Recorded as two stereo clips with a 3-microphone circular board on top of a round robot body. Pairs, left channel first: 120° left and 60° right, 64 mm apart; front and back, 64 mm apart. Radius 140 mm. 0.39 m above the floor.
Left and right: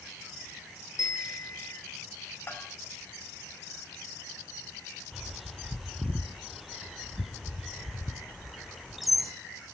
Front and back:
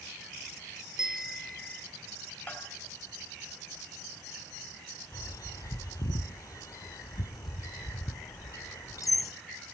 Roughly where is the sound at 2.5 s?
Left.